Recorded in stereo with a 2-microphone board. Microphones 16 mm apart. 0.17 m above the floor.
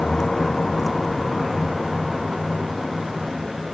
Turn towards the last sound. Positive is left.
turn(degrees=-30)  # may be behind; listen again after turning